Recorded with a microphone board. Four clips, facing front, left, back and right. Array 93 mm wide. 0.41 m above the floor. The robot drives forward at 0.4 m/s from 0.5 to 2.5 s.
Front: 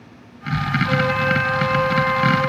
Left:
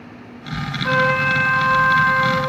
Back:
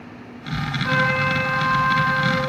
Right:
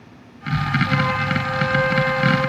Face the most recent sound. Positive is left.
turn(degrees=110)